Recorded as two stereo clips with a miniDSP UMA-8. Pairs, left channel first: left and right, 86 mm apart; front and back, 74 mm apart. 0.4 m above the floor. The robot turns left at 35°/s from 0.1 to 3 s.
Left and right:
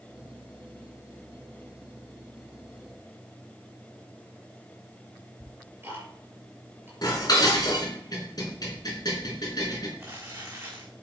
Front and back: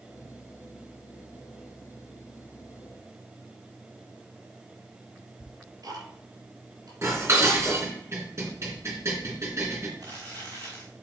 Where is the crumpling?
150° right, 5.5 m.